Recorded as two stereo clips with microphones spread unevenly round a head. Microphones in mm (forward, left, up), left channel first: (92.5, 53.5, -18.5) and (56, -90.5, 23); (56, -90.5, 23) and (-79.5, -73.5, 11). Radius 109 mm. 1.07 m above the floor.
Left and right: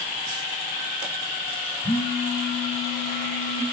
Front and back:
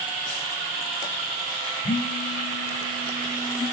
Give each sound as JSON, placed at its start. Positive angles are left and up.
{"t": 1.8, "sound": "a phone buzzing", "azimuth_deg": 15, "distance_m": 6.5}